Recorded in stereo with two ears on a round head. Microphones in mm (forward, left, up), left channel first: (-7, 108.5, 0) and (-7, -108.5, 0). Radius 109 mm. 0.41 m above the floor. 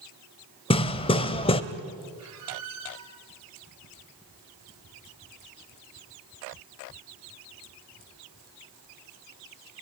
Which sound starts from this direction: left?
Hammering, at 0.7 s.